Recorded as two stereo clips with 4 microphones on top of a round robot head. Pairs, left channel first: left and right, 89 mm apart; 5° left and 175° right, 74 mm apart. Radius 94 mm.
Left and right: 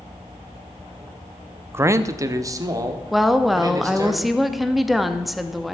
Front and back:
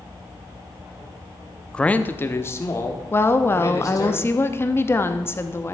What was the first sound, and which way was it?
A man speaking, 60° right.